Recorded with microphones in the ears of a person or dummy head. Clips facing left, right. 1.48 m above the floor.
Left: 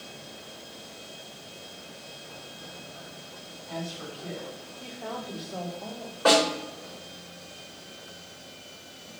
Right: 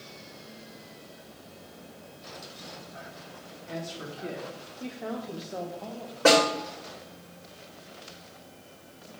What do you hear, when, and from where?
3.7 s a woman speaking: 45° right (ahead or behind), 3 m; by 6.2 s 5° left (ahead or behind), 1.2 m
6.2 s a snare drum: 40° right (ahead or behind), 3 m